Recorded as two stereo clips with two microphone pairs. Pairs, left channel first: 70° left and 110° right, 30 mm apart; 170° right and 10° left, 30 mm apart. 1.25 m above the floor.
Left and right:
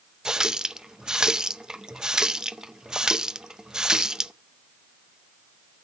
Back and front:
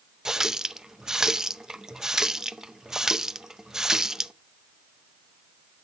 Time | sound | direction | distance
0.2 | a running tap | 50° right | 0.6 m